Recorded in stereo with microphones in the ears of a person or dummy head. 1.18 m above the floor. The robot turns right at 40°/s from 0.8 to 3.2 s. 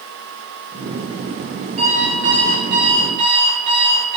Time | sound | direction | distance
1.8 | an alarm clock | 95° right | 9 m